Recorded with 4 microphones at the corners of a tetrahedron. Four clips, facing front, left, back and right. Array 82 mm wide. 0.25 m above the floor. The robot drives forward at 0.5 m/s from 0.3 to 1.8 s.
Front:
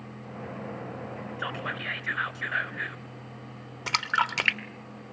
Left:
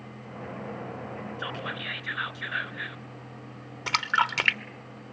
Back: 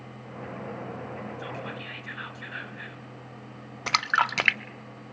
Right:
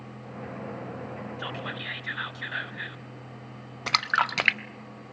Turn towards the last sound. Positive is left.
turn(degrees=-145)